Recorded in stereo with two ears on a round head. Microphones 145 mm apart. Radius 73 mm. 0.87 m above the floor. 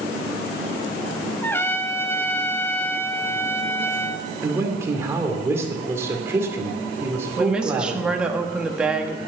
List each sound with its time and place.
1.4 s a trumpet: 15° left (ahead or behind), 0.7 m
4.4 s a man speaking: 15° right (ahead or behind), 2.5 m
7.4 s a woman speaking: 5° right (ahead or behind), 1.5 m